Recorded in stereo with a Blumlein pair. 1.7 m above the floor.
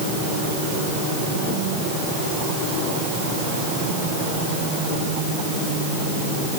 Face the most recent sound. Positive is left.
No sound to turn to.